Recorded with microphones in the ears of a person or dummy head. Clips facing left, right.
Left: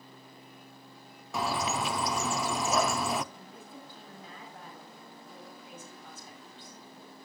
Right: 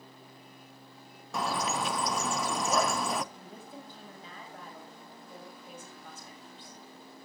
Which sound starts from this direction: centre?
A bird, at 1.3 s.